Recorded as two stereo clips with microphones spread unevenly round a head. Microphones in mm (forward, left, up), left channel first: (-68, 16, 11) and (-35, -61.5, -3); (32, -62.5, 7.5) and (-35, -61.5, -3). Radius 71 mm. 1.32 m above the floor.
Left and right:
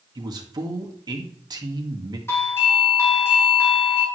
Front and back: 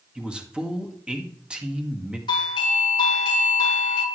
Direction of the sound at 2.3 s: 40° left.